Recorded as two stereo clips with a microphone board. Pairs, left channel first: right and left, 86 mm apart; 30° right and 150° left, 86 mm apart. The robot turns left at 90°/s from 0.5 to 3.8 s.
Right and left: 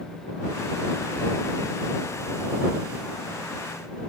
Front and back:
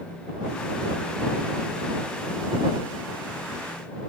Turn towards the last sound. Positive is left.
No sound to turn to.